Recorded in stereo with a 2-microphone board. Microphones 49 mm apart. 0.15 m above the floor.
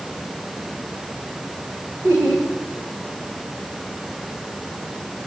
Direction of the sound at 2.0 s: 65° right (ahead or behind).